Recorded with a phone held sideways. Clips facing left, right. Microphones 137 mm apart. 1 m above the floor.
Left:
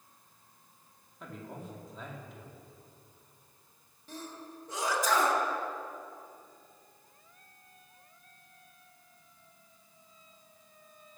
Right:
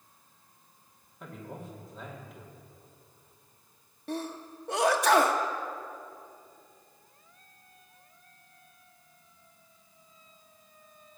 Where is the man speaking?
Centre (ahead or behind), 2 m.